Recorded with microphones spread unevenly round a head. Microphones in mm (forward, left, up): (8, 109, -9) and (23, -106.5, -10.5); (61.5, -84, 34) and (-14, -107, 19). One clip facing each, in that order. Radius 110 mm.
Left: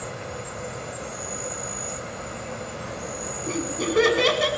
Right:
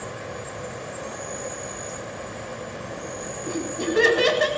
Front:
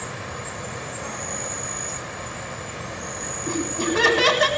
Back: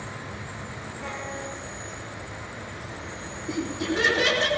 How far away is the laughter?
About 7.5 m.